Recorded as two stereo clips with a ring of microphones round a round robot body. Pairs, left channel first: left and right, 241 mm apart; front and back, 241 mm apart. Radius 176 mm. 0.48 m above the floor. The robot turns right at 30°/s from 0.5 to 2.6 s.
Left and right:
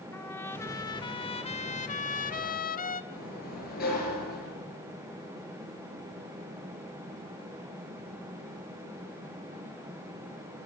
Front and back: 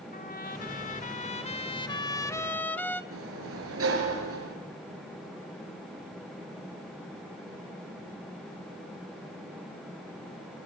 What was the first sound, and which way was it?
A trumpet, 15° left.